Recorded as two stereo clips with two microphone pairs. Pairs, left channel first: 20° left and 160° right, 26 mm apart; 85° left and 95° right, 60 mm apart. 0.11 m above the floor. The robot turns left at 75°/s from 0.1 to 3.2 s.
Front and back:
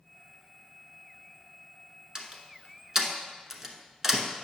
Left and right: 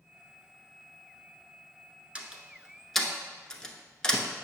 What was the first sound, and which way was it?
A door slam, 140° right.